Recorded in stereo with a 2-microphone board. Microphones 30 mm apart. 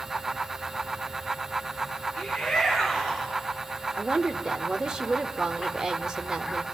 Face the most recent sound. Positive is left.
turn(degrees=-25)  # may be behind; listen again after turning